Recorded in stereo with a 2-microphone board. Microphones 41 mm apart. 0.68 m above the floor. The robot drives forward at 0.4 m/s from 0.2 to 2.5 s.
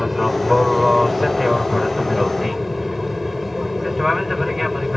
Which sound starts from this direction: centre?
An aircraft, at 0.0 s.